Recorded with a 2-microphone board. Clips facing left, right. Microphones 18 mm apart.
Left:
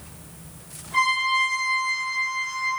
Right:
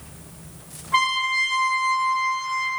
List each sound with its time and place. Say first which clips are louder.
0.9 s a trumpet: even; 60° right (ahead or behind), 1.3 m